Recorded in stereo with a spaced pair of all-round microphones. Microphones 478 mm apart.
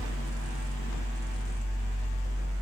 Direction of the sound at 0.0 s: 15° left (ahead or behind).